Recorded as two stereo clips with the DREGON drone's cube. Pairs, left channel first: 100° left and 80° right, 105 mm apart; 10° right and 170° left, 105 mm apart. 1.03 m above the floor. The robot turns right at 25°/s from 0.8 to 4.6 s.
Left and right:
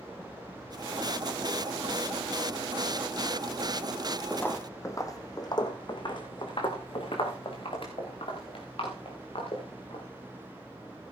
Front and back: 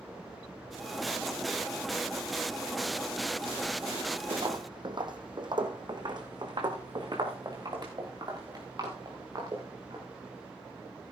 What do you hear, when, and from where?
4.3 s footsteps: 165° left, 1.5 m; by 10.0 s 120° left, 6 m